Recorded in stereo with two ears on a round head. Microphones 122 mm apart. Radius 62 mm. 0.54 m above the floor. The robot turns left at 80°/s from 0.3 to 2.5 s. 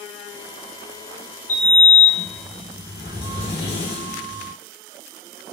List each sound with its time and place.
1.5 s a sliding door: 120° left, 2.5 m; by 4.5 s 40° left, 2.5 m